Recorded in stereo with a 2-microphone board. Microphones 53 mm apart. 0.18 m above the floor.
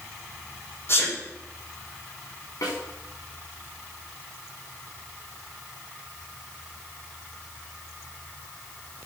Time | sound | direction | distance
0.9 | a sneeze | 45° left (ahead or behind) | 6 m
2.6 | a snare drum | 75° left (ahead or behind) | 8.5 m